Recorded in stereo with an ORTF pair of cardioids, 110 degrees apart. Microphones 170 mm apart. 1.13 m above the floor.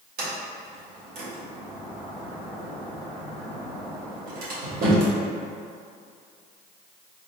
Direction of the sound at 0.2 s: 60° right.